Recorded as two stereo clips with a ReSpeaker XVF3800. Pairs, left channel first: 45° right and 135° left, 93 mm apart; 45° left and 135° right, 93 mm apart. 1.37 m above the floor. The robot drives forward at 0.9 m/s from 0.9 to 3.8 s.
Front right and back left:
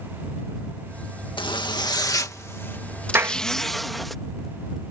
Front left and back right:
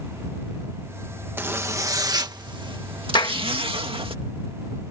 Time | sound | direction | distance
1.4 | a zipper | 70° right | ?
3.1 | a clap | 70° left | ?